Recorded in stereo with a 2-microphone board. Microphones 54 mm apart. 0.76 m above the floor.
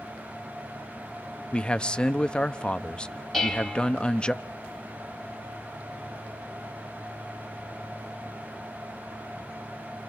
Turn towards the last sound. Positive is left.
turn(degrees=5)  # may be behind; listen again after turning